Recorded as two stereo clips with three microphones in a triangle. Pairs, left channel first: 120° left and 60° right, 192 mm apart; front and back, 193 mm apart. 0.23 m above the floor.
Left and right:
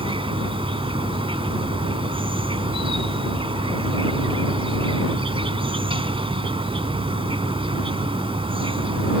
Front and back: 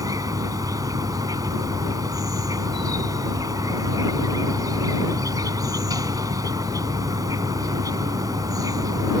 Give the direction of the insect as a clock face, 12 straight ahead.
4 o'clock.